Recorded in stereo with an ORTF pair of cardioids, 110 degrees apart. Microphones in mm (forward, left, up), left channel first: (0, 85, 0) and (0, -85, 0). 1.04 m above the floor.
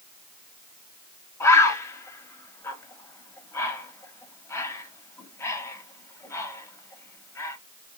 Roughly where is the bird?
Ahead.